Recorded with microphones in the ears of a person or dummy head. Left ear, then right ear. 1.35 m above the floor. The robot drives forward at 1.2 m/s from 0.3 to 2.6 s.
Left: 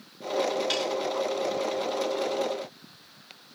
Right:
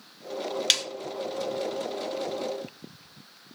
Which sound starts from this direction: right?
A snare drum, at 0.7 s.